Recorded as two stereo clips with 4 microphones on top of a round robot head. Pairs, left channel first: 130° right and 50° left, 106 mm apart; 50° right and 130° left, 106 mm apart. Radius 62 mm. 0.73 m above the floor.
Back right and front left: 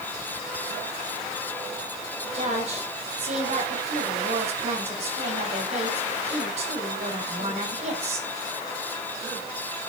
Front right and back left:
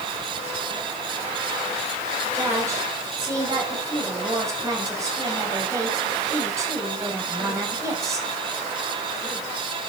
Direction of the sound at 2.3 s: 70° left.